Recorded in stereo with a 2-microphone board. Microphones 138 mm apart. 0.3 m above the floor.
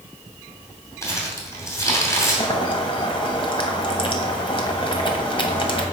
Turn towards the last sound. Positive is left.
turn(degrees=40)  # may be behind; listen again after turning